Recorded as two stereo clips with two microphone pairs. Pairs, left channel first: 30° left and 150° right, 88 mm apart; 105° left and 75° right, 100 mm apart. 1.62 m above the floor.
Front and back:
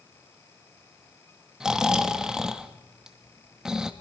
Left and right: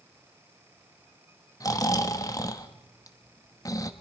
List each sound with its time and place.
1.6 s snoring: 130° left, 1.1 m